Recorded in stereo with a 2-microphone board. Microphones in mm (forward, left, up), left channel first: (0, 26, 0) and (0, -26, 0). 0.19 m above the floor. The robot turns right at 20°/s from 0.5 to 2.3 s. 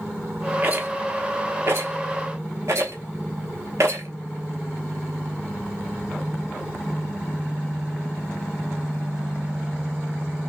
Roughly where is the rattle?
Right.